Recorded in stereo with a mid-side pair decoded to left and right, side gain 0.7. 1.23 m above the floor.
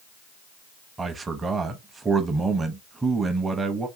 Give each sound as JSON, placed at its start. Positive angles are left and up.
{"t": 1.0, "sound": "a man speaking", "azimuth_deg": -20, "distance_m": 0.7}